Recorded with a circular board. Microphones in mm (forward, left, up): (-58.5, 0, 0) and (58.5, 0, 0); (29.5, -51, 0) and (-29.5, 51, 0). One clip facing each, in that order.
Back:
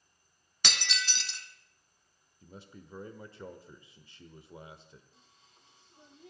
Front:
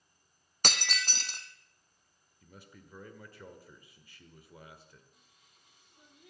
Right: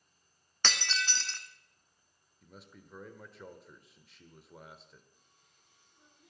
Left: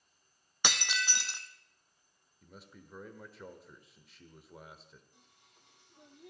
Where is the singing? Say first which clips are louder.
Back 3 dB, left 4 dB; 120° left, 2 m.